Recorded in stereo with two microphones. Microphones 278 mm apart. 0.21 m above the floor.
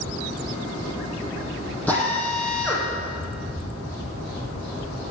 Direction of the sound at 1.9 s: 5° left (ahead or behind).